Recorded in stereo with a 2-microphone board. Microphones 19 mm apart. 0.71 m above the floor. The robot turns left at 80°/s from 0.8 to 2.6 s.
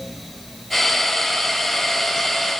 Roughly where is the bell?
I don't hear a bell.